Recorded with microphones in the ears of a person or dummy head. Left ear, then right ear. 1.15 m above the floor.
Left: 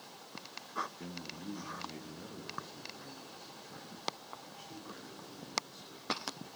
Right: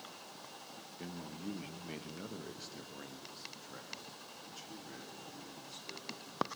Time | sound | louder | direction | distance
1.0 | a man speaking | left 1 dB | 10° right (ahead or behind) | 0.9 m